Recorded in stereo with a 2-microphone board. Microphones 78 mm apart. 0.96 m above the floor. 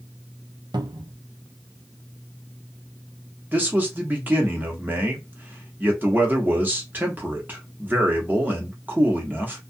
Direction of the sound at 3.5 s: 25° right (ahead or behind).